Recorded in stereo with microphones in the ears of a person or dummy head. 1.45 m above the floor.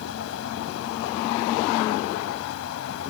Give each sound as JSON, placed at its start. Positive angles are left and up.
{"t": 0.0, "sound": "a fan", "side_deg": 75}